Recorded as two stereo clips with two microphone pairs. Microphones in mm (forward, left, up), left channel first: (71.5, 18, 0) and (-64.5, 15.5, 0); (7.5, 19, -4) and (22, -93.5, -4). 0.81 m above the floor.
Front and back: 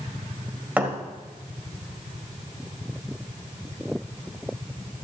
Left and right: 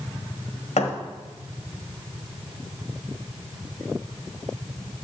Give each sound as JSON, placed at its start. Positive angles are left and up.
{"t": 0.8, "sound": "a thud", "azimuth_deg": 105, "distance_m": 1.6}